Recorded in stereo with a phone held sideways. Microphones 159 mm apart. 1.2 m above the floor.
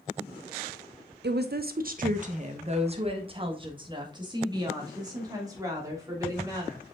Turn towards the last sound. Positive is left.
turn(degrees=-20)  # may be behind; listen again after turning